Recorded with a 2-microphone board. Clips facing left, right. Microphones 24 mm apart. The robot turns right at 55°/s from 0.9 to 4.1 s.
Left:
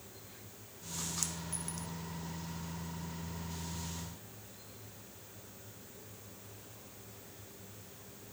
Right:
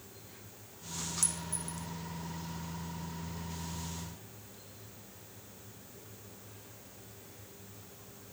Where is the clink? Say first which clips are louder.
Right 2 dB; 20° left (ahead or behind); by 1.9 s 60° left (ahead or behind).